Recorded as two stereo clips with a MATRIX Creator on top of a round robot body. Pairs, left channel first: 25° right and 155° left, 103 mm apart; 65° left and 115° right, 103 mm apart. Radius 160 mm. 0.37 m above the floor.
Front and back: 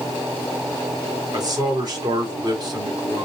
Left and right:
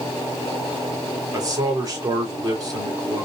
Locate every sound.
1.3 s a man speaking: 160° right, 2.5 m